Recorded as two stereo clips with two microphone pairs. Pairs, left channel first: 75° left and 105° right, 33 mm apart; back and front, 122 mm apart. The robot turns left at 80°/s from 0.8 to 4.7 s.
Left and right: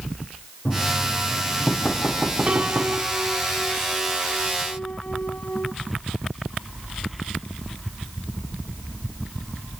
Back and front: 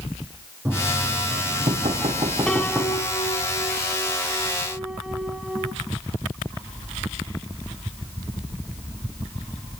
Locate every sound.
0.7 s knocking: 70° left, 6 m; by 3.0 s 110° right, 6 m
2.5 s a piano: 100° right, 1.1 m; by 5.7 s 80° left, 1.1 m